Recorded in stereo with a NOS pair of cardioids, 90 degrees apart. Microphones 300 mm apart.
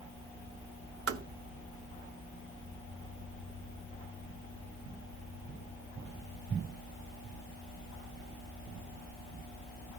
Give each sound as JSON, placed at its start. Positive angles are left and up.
{"t": 1.1, "sound": "tapping", "azimuth_deg": -50, "distance_m": 1.5}